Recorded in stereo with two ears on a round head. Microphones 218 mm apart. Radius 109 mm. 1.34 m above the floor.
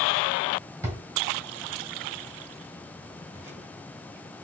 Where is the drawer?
10° right (ahead or behind), 2.5 m.